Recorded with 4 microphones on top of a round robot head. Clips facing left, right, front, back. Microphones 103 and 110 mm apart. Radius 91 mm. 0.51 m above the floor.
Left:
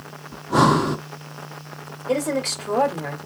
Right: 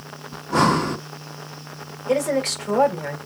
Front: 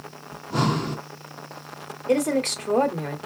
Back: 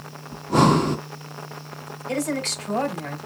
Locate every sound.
0.3 s breathing: 165° left, 0.7 m
2.1 s a woman speaking: 15° left, 2 m